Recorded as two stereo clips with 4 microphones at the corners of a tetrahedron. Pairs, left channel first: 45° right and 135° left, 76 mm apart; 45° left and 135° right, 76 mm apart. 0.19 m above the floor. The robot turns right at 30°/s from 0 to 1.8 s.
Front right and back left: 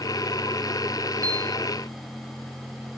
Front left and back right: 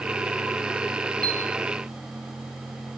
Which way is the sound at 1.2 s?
120° left.